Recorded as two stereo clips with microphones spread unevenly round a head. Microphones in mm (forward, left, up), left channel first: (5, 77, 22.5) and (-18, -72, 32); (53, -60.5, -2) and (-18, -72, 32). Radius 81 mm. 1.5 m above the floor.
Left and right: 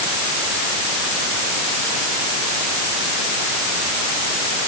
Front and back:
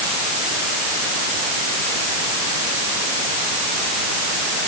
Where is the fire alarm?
No fire alarm in this recording.